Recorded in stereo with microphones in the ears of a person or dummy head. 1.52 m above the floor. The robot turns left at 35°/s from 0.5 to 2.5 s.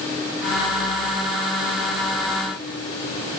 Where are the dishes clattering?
I don't hear dishes clattering.